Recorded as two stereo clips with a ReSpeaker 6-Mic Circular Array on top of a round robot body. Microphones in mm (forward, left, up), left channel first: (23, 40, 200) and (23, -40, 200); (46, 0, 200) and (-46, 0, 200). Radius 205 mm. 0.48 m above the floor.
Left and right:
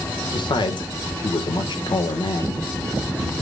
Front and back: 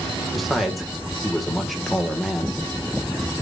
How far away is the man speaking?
About 1.9 m.